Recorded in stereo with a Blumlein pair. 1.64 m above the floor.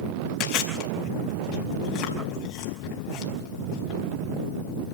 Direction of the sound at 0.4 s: 40° left.